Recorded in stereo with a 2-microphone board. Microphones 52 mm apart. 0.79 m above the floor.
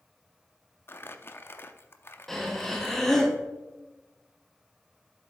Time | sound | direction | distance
0.9 | crumpling | 45° left (ahead or behind) | 0.6 m
2.3 | breathing | 5° left (ahead or behind) | 1.2 m